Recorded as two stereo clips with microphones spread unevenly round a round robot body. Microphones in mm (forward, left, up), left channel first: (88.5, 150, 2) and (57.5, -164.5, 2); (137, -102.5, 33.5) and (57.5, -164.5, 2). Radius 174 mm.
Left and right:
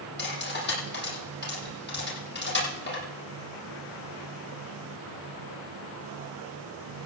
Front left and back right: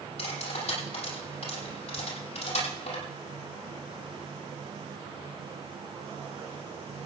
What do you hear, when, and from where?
0.2 s cutlery clinking: 25° left, 8 m